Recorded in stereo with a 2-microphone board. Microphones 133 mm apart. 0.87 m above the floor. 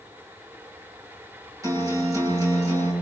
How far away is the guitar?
About 8 m.